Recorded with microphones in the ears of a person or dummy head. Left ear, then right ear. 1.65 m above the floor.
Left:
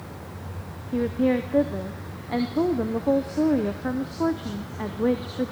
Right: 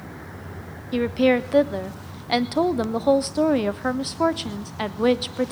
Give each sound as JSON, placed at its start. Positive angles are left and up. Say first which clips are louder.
{"t": 0.9, "sound": "a woman speaking", "louder": "right 4 dB", "side_deg": -25, "distance_m": 0.5}